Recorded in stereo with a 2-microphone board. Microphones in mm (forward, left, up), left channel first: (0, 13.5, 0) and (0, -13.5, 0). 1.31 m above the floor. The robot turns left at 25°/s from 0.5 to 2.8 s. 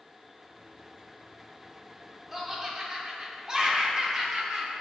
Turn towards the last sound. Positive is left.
turn(degrees=-25)  # may be behind; listen again after turning